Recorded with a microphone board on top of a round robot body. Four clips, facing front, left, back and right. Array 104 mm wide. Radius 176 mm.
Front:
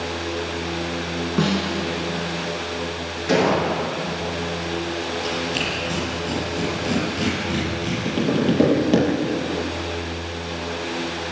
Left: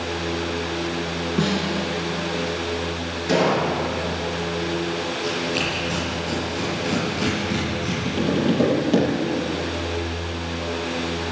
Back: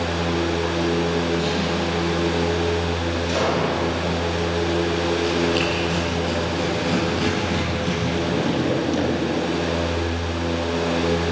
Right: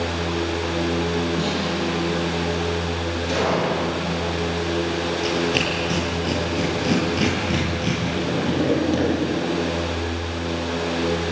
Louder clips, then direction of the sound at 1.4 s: Left 1 dB, even; 10° left.